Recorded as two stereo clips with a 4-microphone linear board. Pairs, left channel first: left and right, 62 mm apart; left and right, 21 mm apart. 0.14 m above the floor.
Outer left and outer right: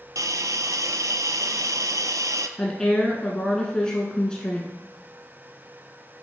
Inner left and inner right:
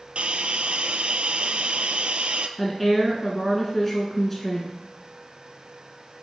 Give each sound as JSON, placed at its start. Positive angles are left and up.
{"t": 0.1, "sound": "a hiss", "side_deg": -70, "distance_m": 0.5}
{"t": 2.6, "sound": "a woman speaking", "side_deg": 15, "distance_m": 1.3}